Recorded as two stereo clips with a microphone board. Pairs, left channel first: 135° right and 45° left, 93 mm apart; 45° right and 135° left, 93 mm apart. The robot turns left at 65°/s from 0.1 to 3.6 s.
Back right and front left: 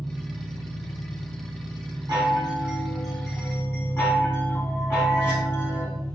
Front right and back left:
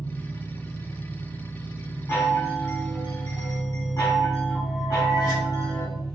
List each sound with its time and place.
0.0 s an engine running: 95° left, 2.0 m; by 6.2 s 130° right, 2.0 m
2.1 s a chime: 15° left, 1.5 m; by 5.8 s 80° right, 1.5 m